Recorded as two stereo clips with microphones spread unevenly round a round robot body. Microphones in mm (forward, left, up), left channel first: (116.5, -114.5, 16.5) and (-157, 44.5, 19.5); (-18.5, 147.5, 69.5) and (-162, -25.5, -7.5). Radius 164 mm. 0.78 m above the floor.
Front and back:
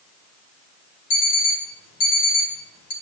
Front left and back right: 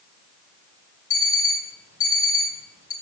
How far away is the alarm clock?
About 1.9 m.